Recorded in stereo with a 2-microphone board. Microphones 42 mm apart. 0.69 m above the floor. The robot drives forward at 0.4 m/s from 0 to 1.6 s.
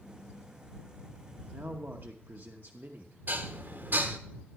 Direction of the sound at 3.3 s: 50° right (ahead or behind).